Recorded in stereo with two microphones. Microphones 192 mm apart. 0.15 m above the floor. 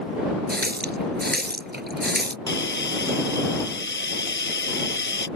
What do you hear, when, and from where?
0.5 s a running tap: 60° right (ahead or behind)
2.5 s a hiss: 75° left (ahead or behind)